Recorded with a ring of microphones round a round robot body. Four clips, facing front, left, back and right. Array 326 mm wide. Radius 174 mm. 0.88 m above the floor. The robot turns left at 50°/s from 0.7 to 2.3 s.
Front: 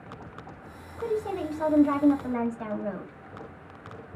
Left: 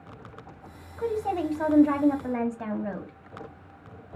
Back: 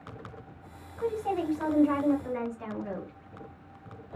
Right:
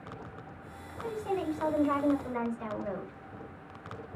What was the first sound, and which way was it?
A woman speaking, 115° left.